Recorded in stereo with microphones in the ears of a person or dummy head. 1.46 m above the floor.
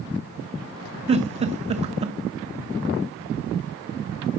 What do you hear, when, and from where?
1.1 s a giggle: 30° right (ahead or behind), 1.0 m